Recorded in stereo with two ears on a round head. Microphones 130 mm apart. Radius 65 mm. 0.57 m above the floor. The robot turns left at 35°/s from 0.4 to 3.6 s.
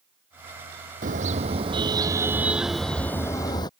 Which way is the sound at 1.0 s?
120° right.